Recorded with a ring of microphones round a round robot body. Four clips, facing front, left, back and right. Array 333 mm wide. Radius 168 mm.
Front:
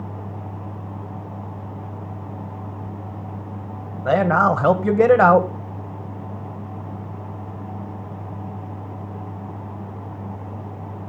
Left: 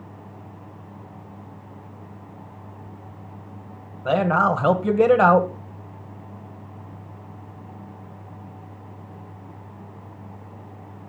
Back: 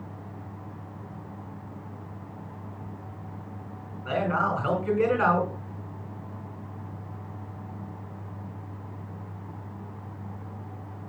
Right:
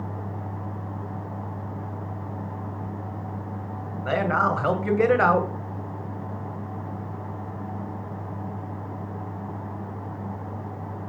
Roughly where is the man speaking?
Ahead.